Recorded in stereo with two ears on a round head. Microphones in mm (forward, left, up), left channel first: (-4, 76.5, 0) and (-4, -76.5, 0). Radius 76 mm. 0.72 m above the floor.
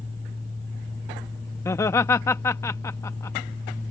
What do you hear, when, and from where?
1.6 s laughter: 15° left (ahead or behind)